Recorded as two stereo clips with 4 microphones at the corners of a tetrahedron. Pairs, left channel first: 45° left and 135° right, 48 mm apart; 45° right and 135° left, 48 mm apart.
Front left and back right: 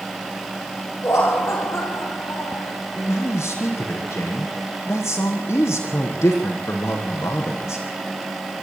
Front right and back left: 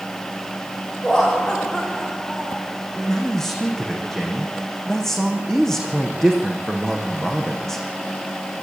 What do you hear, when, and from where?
1.0 s laughter: 30° left, 8.5 m; by 2.7 s 35° left, 9 m
3.0 s a man speaking: 40° left, 5.5 m